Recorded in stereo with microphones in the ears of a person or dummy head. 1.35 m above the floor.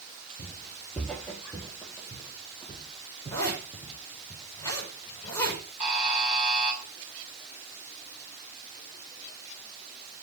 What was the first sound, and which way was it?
Footsteps, 10° left (ahead or behind).